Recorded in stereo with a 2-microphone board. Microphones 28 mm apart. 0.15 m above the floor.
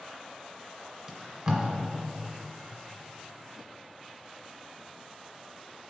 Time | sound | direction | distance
1.1 | tape being pulled | 15° right (ahead or behind) | 1.8 m